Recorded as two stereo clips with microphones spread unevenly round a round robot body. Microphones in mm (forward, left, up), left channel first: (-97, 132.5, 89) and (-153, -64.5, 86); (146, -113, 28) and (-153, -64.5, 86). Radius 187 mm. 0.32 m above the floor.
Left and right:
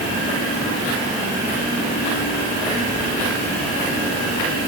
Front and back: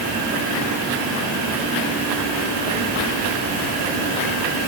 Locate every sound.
Only background noise.